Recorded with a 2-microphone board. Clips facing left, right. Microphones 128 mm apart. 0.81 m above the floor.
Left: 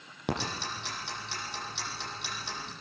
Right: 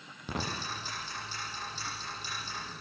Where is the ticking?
70° left (ahead or behind), 9 m.